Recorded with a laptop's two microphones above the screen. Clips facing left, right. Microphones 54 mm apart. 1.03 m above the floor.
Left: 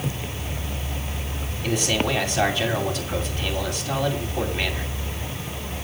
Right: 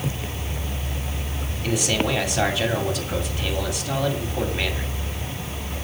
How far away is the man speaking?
About 7 m.